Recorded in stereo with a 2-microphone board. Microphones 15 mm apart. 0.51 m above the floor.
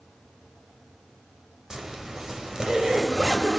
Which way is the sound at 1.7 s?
45° right (ahead or behind).